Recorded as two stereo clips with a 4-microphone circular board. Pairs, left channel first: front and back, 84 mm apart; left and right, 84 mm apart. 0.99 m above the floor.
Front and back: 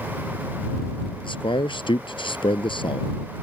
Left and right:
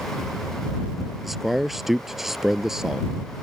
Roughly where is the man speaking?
Ahead.